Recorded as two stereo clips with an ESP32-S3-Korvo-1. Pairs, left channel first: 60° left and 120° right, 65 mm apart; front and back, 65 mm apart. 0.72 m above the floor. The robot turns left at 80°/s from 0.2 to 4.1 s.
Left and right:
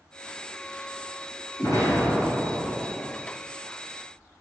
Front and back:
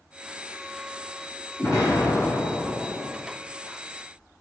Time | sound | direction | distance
1.6 | an explosion | 40° left | 3.5 m